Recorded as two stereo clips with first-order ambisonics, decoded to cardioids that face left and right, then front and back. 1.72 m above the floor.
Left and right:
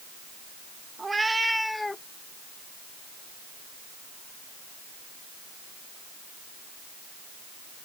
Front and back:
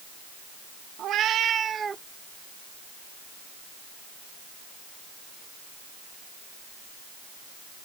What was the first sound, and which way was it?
A cat meowing, 160° right.